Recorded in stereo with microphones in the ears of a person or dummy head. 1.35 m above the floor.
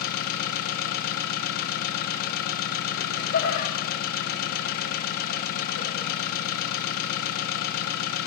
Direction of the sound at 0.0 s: 60° left (ahead or behind).